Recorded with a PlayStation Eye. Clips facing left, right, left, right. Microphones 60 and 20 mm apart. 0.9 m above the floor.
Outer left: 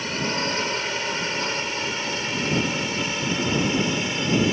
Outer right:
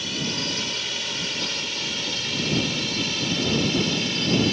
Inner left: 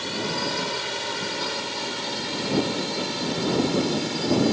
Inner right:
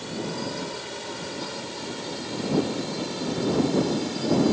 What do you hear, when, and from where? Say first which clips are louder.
0.0 s a drone: outer left 4 dB, inner left 4 dB; 40° left (ahead or behind); by 4.5 s 20° left (ahead or behind)